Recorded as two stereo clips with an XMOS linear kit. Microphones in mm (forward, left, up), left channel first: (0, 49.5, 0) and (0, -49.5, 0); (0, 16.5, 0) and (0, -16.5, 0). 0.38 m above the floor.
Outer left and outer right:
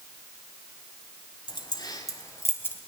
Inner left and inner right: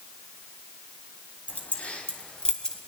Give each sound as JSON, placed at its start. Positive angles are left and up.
{"t": 1.5, "sound": "keys jangling", "side_deg": 50, "distance_m": 1.8}